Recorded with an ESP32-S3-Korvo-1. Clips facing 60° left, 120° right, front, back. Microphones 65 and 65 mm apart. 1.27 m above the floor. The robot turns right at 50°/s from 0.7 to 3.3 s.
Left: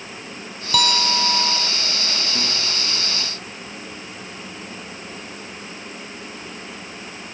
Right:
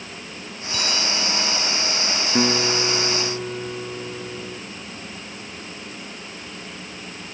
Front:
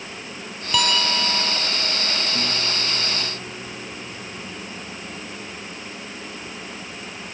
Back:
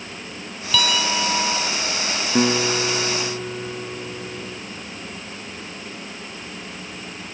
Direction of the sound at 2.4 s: 175° right.